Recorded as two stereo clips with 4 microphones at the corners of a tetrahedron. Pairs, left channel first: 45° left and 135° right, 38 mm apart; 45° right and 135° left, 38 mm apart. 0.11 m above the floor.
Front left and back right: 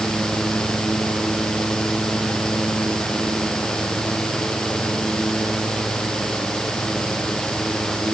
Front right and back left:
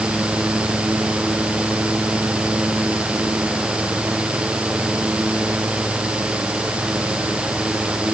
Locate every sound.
Only background noise.